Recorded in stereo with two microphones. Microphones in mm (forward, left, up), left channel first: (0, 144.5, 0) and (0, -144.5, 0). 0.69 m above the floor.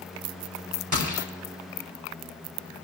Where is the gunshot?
85° right, 3 m.